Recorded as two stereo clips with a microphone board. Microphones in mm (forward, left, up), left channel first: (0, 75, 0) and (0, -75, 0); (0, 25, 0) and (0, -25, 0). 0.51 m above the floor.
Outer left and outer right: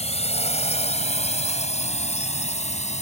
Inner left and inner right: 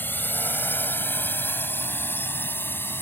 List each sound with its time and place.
0.0 s a drone: 45° left (ahead or behind); by 3.0 s 50° left (ahead or behind)